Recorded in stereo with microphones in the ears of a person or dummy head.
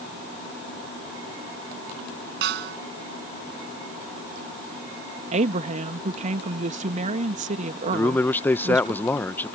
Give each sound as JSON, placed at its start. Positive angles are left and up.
{"t": 2.4, "sound": "a snare drum", "side_deg": -65}
{"t": 5.3, "sound": "a woman speaking", "side_deg": -40}
{"t": 7.9, "sound": "a man speaking", "side_deg": 10}